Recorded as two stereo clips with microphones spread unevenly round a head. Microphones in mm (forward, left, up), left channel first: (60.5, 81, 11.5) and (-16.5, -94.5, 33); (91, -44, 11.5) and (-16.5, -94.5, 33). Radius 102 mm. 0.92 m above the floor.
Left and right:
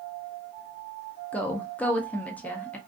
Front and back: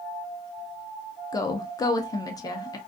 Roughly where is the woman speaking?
Ahead.